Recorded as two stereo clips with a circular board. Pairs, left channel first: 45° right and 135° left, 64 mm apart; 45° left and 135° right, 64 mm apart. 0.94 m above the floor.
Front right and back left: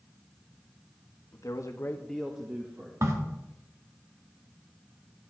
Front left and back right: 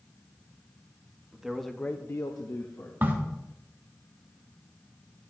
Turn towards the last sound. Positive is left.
turn(degrees=170)